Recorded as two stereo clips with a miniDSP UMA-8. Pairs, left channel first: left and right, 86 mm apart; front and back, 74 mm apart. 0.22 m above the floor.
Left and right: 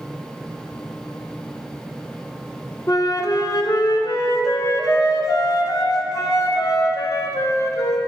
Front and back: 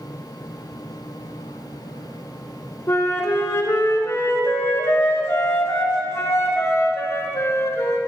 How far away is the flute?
About 1.0 m.